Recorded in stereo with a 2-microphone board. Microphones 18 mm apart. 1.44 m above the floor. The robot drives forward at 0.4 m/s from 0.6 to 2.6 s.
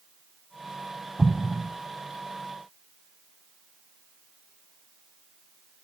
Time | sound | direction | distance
1.2 | an explosion | 50° right (ahead or behind) | 0.6 m